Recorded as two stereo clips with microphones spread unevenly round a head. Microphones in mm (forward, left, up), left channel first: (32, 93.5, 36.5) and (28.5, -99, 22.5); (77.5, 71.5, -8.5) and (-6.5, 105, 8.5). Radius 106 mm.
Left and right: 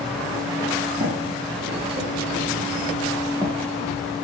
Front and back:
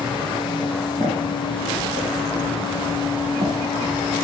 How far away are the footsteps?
About 4.5 m.